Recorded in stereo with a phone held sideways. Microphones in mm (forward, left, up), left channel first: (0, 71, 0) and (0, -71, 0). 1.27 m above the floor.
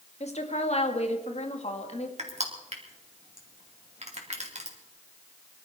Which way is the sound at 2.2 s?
50° right (ahead or behind).